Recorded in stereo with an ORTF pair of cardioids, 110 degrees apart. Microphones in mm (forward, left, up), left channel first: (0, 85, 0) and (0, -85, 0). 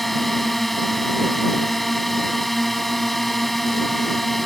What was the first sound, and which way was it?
A drone, straight ahead.